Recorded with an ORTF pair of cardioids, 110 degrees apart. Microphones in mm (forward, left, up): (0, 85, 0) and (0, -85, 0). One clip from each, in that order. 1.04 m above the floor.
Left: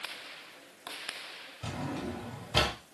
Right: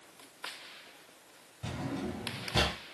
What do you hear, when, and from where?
1.6 s a drawer: 25° left, 1.5 m